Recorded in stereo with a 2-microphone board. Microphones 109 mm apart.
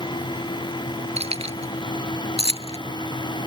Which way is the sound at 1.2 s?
70° right (ahead or behind).